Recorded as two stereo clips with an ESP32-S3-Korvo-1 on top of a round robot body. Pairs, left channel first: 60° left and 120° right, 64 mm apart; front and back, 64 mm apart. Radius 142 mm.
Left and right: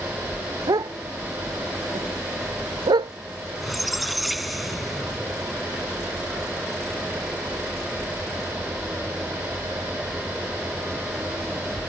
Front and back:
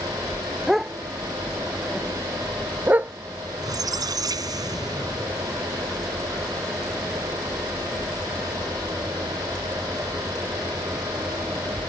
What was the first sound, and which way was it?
A dog barking, 95° right.